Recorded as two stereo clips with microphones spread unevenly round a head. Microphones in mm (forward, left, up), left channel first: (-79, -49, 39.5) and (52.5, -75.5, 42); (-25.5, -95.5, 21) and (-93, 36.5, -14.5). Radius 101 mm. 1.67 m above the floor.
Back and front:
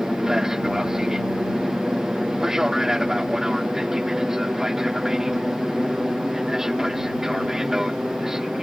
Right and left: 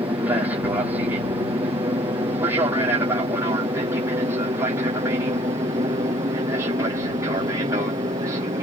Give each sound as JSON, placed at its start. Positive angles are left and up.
{"t": 0.0, "sound": "an aircraft", "azimuth_deg": 75}